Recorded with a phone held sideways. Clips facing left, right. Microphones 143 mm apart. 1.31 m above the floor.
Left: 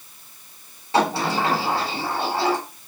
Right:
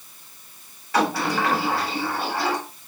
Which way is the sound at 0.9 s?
25° left (ahead or behind).